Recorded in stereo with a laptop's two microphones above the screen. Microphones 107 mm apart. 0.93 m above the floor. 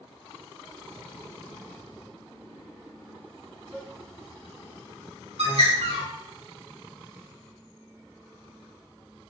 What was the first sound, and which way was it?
A cowbell, 90° right.